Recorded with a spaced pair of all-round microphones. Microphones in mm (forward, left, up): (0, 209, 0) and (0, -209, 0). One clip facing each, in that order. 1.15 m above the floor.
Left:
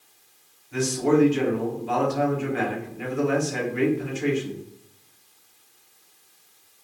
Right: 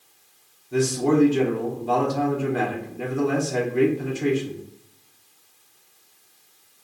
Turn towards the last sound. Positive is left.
turn(degrees=-55)  # may be behind; listen again after turning